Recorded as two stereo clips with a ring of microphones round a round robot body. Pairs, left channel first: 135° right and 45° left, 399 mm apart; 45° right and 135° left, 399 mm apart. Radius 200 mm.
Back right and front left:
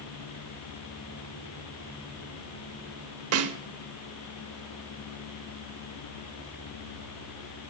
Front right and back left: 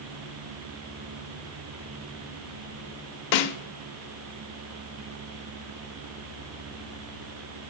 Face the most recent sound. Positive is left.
turn(degrees=-10)